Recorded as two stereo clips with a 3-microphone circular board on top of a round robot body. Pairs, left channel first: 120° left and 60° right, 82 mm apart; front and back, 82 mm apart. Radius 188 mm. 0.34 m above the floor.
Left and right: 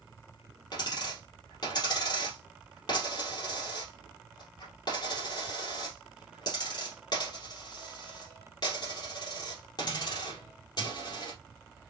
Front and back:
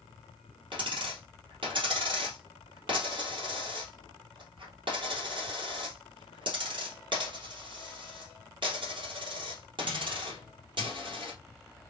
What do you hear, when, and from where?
0.7 s a dropped coin: 160° left, 3 m